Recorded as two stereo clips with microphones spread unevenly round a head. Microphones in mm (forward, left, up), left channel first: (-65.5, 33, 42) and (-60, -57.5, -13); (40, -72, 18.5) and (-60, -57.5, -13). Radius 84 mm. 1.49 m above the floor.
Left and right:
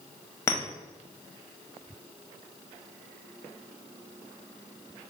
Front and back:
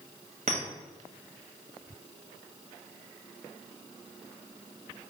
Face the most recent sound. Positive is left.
turn(degrees=120)